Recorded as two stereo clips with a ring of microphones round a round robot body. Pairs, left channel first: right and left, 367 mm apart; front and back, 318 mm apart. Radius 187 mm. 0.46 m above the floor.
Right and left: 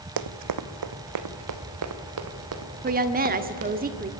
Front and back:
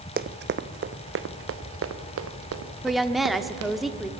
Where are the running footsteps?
120° left, 1.3 m; by 3.7 s 140° left, 3.5 m.